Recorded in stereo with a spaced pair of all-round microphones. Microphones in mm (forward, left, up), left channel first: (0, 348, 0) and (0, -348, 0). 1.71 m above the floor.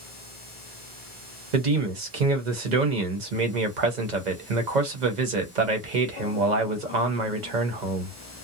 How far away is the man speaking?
About 1.0 m.